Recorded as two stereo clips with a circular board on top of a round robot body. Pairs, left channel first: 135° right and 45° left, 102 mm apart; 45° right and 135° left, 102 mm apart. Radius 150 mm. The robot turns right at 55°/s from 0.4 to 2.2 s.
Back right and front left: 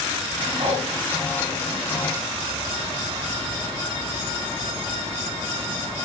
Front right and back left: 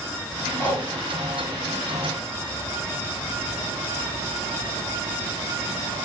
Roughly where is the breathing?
Ahead left.